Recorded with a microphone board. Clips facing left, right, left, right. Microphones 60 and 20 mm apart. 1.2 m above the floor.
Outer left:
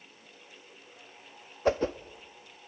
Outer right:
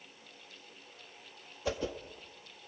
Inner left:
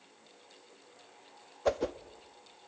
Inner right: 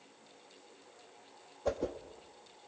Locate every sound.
1.6 s a whoosh: 40° left (ahead or behind), 0.8 m